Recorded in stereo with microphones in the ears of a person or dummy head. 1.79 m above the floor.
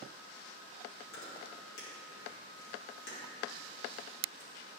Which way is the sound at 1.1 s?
80° left.